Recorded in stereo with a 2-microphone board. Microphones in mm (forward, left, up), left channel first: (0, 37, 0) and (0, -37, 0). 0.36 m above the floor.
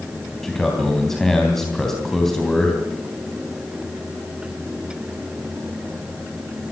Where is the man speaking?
5° left (ahead or behind), 3.5 m.